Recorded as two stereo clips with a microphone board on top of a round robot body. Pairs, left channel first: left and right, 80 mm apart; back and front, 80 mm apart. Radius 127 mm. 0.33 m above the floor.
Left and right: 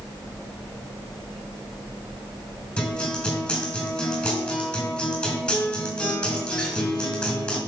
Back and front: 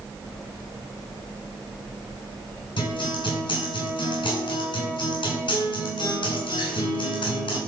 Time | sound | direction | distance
2.8 | a guitar | 165° left | 5 m